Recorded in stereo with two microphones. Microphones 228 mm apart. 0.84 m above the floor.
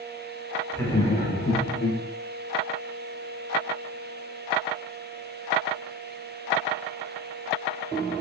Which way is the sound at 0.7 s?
10° left (ahead or behind).